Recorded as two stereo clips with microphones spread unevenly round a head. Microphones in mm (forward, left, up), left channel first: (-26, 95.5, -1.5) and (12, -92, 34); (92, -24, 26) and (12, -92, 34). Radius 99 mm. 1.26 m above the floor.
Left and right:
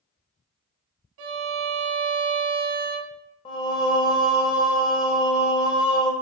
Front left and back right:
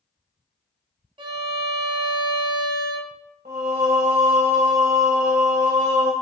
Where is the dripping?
I don't hear dripping.